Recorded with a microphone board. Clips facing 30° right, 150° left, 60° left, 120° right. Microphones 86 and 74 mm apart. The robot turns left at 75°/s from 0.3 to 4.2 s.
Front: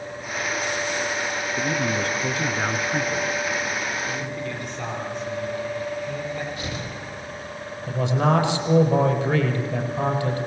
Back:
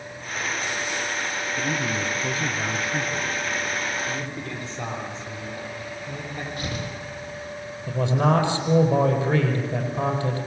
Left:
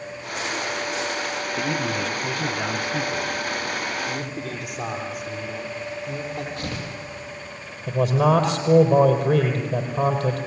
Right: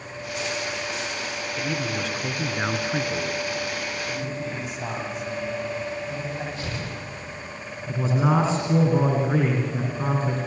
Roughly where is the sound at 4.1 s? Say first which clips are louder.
Front 2 dB, even; left.